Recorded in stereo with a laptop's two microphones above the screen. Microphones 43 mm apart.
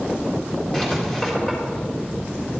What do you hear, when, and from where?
0.7 s writing: 15° left (ahead or behind), 3.5 m